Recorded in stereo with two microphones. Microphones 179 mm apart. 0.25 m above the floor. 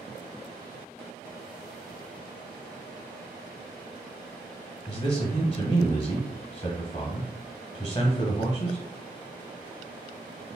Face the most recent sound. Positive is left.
turn(degrees=30)  # may be behind; listen again after turning